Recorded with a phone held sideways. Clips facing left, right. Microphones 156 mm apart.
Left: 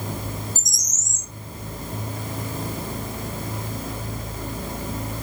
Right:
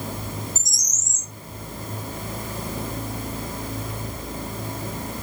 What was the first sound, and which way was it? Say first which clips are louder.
A bird: left 1 dB; 65° right (ahead or behind).